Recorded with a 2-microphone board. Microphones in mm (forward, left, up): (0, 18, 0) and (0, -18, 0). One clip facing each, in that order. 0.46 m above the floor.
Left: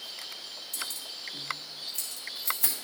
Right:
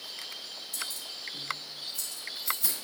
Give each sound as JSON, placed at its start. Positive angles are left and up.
{"t": 0.7, "sound": "keys jangling", "side_deg": 60, "distance_m": 2.5}